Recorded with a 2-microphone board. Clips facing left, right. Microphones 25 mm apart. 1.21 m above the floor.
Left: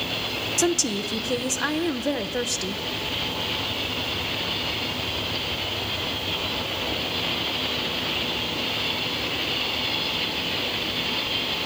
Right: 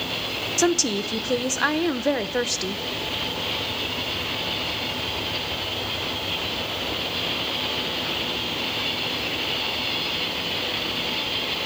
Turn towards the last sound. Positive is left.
turn(degrees=-15)  # may be behind; listen again after turning